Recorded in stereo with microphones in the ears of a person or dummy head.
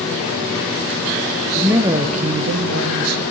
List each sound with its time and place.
1.6 s a man speaking: 5° right (ahead or behind), 0.6 m; by 3.2 s 90° right, 0.8 m